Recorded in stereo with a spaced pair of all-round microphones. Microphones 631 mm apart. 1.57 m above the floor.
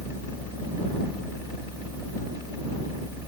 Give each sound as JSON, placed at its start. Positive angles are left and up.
{"t": 0.0, "sound": "a fan", "side_deg": 60}